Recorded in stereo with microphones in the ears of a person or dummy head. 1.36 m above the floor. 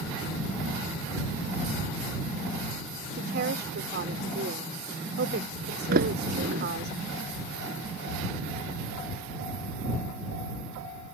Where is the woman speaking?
60° right (ahead or behind).